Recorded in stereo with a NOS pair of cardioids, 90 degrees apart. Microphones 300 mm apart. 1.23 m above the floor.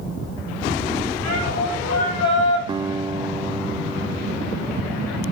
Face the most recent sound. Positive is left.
turn(degrees=-15)